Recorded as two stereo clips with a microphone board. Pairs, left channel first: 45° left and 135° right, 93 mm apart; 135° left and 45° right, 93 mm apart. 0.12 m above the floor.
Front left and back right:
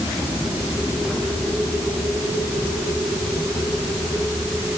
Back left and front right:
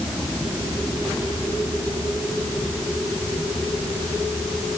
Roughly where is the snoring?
No snoring in this recording.